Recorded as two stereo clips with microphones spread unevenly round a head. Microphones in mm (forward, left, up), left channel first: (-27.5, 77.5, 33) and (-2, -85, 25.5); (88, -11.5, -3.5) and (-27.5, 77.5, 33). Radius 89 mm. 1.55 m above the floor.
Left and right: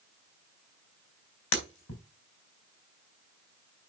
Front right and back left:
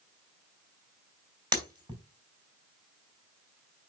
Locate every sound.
1.5 s breaking glass: 90° left, 3.5 m